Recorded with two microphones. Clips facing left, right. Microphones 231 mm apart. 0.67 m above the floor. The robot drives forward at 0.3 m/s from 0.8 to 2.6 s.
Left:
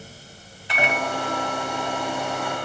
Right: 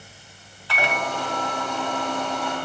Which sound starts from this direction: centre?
A microwave, at 0.7 s.